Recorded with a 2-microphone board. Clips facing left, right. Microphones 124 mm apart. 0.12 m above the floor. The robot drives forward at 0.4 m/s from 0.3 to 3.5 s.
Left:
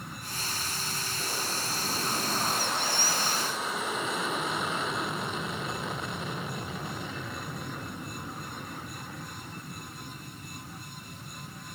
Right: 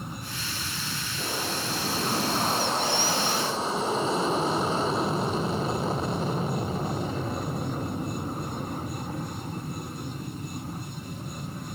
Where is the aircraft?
25° right (ahead or behind); by 11.8 s 40° right (ahead or behind).